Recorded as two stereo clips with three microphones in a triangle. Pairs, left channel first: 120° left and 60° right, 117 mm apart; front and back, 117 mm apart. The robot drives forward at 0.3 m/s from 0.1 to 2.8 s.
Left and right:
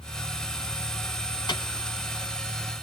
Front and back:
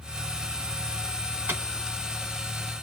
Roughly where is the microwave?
Behind left.